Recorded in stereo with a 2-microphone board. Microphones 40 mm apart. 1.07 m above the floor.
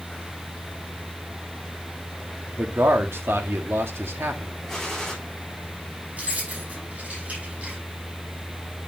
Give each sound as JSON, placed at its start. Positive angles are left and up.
{"t": 2.6, "sound": "a man speaking", "side_deg": -80, "distance_m": 1.6}
{"t": 4.7, "sound": "a gunshot", "side_deg": 5, "distance_m": 3.5}
{"t": 6.2, "sound": "keys jangling", "side_deg": -35, "distance_m": 6.5}